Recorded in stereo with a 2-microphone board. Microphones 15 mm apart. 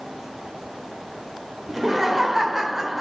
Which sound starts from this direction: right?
Laughter, at 1.7 s.